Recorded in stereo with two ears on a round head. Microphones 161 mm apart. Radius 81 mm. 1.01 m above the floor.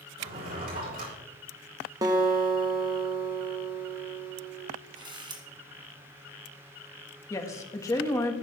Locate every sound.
0.2 s a drawer: 50° right (ahead or behind), 6 m
2.0 s a guitar: 20° right (ahead or behind), 1.4 m
5.0 s a camera shutter: 25° right (ahead or behind), 2 m
7.3 s a woman speaking: 15° left (ahead or behind), 1.5 m